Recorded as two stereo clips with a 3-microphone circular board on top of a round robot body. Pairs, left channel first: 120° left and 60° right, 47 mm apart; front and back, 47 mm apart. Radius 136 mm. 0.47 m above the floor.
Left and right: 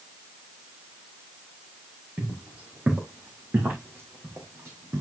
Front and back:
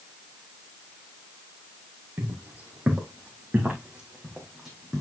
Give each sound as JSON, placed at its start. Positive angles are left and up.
{"t": 2.2, "sound": "footsteps", "azimuth_deg": -130, "distance_m": 2.5}